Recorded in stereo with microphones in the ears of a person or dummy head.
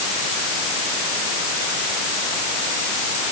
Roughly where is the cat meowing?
I don't hear a cat meowing.